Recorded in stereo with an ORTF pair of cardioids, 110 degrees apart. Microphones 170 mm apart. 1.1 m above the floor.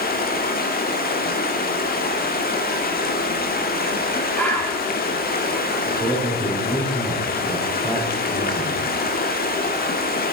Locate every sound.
0.0 s running water: 65° left, 1.5 m
4.3 s a bird: 10° left, 7 m
5.9 s a man speaking: 30° left, 7.5 m